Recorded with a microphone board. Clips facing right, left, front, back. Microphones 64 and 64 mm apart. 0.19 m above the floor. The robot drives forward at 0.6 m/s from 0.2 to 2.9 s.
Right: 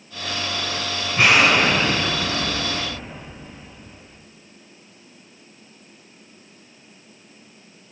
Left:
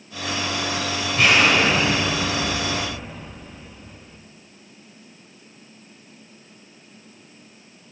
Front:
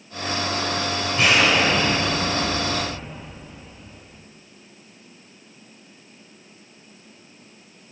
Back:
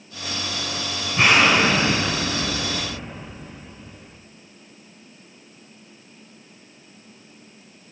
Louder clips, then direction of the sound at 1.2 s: Right 1 dB, back 2 dB; 155° right.